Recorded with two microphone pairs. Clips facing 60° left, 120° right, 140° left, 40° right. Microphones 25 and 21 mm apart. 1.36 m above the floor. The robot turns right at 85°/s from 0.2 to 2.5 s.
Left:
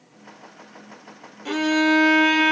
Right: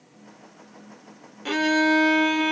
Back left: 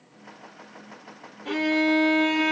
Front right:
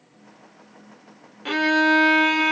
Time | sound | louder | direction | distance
1.4 | a violin | left 1 dB, front right 4 dB | 55° right | 0.8 m